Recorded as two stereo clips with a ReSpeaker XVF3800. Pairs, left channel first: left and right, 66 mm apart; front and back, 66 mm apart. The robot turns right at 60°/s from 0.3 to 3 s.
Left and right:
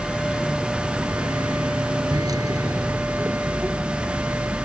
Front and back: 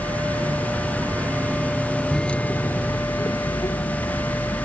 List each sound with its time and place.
0.0 s a vehicle: 165° left; by 4.7 s 30° right